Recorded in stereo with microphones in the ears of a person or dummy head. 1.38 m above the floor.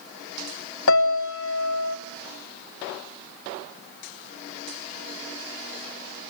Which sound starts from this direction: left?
A piano, at 0.9 s.